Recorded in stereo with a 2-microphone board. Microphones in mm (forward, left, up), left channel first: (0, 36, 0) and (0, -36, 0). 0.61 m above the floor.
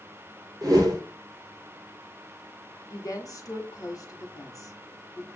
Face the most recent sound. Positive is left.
turn(degrees=55)  # may be behind; listen again after turning